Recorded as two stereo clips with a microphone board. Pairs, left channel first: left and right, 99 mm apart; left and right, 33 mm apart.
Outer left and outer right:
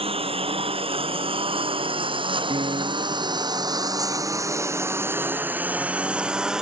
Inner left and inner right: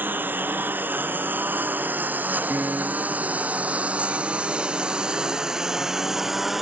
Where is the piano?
70° right (ahead or behind).